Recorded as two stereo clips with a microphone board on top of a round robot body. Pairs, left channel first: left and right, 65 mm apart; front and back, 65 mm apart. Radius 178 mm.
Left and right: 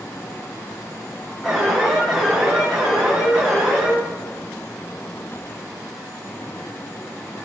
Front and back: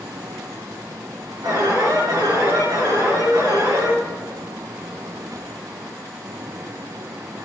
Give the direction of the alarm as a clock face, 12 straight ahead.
6 o'clock.